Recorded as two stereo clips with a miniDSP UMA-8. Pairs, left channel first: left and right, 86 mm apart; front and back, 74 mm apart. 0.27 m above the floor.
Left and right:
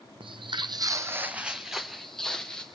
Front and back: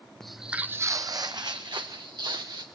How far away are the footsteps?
About 0.8 m.